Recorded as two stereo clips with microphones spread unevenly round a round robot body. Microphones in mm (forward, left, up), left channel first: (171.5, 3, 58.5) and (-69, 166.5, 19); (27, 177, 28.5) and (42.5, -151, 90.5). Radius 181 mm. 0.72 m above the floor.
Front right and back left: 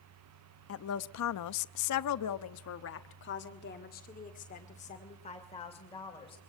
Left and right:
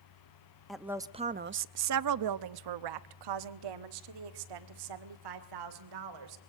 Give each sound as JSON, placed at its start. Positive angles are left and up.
{"t": 0.7, "sound": "a woman speaking", "azimuth_deg": 10, "distance_m": 0.8}